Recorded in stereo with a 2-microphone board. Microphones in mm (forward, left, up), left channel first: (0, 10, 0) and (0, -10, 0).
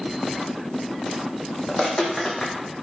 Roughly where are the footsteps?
Left.